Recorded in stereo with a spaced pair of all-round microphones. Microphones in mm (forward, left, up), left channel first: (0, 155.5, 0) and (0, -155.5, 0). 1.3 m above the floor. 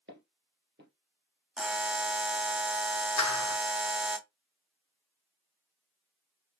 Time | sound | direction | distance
0.1 | footsteps | 40° right (ahead or behind) | 1.9 m
1.6 | a buzzer | 5° right (ahead or behind) | 0.8 m
3.2 | a clap | 65° left (ahead or behind) | 0.6 m